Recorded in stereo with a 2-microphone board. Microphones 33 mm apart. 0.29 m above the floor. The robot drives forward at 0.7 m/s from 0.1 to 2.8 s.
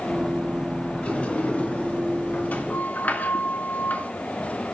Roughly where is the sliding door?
Left.